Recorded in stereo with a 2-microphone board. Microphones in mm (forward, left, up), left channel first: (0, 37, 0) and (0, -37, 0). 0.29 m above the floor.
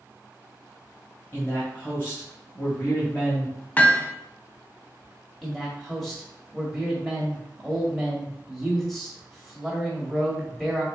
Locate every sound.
1.3 s a man speaking: 30° left (ahead or behind), 1.5 m
3.8 s hammering: 20° left (ahead or behind), 0.5 m
5.4 s a man speaking: centre (ahead or behind), 1.6 m